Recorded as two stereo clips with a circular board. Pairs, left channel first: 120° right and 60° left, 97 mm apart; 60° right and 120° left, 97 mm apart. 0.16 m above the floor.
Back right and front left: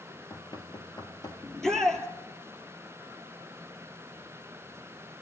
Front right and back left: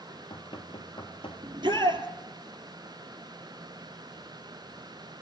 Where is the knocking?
80° right, 2.5 m.